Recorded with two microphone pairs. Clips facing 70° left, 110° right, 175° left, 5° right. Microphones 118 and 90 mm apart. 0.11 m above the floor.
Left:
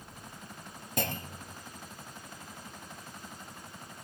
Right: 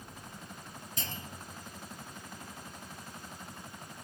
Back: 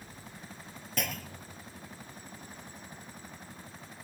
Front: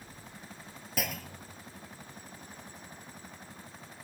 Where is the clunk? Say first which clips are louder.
Left 10 dB, even; 80° left, 0.6 m.